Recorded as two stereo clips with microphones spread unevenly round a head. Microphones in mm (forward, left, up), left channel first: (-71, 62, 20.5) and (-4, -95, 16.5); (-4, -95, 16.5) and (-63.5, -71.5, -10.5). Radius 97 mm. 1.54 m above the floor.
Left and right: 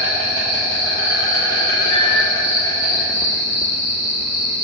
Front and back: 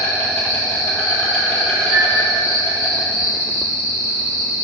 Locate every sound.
0.0 s an insect: 40° left, 1.6 m
1.9 s a flute: 50° left, 2.5 m